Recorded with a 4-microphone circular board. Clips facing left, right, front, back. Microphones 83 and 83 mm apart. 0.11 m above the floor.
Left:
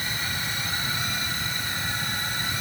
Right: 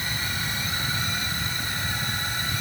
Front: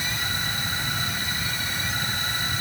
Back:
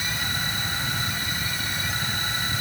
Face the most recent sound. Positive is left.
No sound to turn to.